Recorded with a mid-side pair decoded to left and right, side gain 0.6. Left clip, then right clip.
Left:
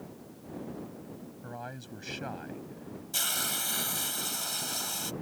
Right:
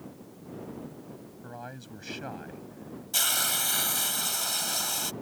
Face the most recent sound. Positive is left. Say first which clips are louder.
# right 4 dB
turn(degrees=-20)